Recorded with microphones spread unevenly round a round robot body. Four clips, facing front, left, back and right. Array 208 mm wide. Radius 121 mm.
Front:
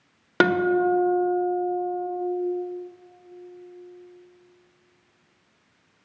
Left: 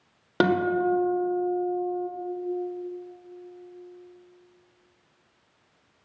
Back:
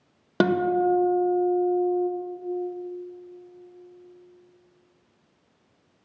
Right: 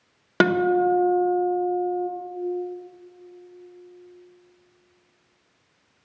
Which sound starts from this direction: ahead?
A guitar, at 0.4 s.